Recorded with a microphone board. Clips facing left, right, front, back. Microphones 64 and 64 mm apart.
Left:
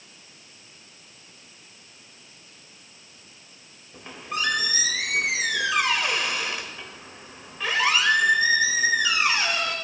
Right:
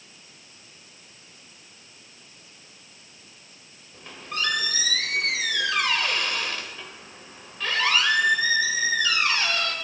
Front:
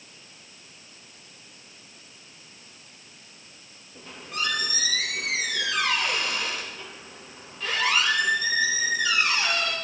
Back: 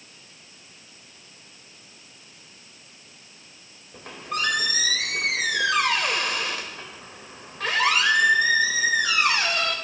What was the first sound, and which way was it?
A squeak, 165° left.